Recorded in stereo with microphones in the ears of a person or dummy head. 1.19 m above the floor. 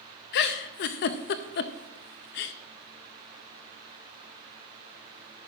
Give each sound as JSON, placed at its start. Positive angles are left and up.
{"t": 0.3, "sound": "a giggle", "side_deg": 50, "distance_m": 0.6}